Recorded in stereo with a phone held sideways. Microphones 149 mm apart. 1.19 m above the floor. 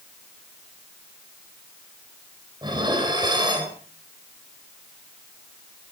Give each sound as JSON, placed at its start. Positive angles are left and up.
{"t": 2.6, "sound": "dishes clattering", "side_deg": -30, "distance_m": 3.0}